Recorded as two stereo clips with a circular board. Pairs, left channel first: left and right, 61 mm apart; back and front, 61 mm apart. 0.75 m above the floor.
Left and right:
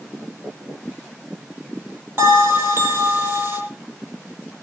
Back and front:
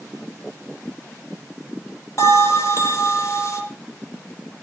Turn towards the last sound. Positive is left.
turn(degrees=-140)